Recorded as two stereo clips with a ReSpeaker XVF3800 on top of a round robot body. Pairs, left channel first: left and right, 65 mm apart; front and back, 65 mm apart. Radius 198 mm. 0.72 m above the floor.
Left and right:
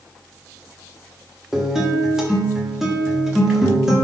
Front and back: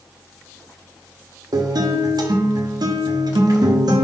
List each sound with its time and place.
1.5 s a guitar: 170° right, 1.3 m